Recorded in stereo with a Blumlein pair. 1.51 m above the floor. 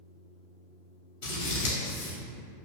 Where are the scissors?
50° left, 1.2 m.